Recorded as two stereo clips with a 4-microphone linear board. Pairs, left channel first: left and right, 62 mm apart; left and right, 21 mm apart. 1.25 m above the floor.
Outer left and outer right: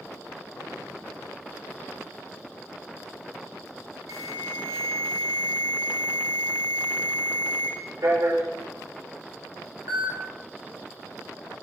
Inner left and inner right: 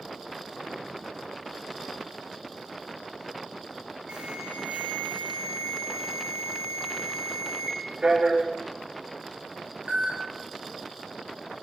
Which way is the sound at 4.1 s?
65° right (ahead or behind).